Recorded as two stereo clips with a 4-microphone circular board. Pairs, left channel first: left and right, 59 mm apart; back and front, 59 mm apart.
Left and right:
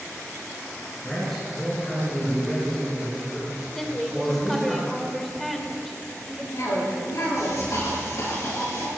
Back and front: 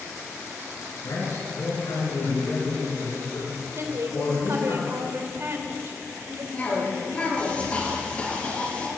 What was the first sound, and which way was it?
A man speaking, 170° left.